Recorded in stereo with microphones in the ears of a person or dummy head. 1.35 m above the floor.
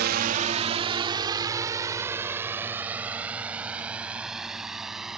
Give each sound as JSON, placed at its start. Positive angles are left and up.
{"t": 0.0, "sound": "a drone", "side_deg": -50}